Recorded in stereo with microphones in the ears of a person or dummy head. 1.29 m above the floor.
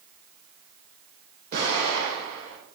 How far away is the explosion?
About 3 m.